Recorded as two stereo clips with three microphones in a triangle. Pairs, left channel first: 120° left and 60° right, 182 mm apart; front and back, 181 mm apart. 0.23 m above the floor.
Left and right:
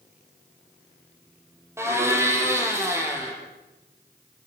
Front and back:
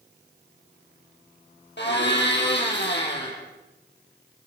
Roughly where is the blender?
Ahead.